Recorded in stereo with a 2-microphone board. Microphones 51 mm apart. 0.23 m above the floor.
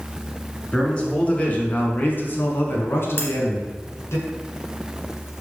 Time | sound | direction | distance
0.7 | a man speaking | 20° left (ahead or behind) | 2.0 m
3.2 | cutlery clinking | 55° left (ahead or behind) | 1.4 m